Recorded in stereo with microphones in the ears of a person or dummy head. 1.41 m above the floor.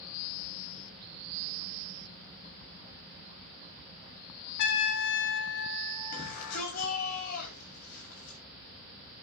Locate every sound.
4.6 s a trumpet: 65° left (ahead or behind), 1.7 m
6.1 s a shout: 55° left (ahead or behind), 6.5 m